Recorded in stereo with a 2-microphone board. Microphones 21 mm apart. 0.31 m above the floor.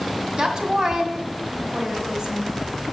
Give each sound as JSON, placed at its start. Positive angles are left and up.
{"t": 0.4, "sound": "a woman speaking", "side_deg": -35, "distance_m": 2.0}